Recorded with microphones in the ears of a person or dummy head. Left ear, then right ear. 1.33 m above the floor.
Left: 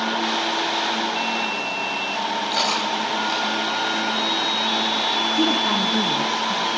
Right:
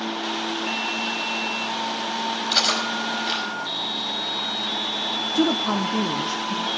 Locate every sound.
2.5 s cutlery clinking: 30° right (ahead or behind), 4.5 m
5.3 s a woman speaking: 20° right (ahead or behind), 0.7 m